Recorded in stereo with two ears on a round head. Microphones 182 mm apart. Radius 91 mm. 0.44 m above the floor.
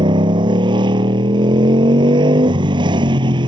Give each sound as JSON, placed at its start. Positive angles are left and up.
{"t": 0.0, "sound": "a motorcycle", "side_deg": -25}